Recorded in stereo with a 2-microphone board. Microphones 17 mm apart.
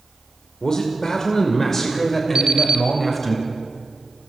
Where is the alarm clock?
60° right (ahead or behind), 3 m.